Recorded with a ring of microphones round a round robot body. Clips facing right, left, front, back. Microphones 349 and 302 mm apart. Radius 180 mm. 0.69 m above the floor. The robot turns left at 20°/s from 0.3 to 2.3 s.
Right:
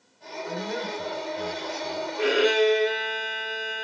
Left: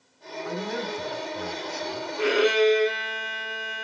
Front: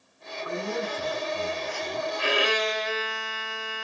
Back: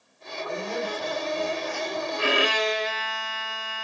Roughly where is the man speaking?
Left.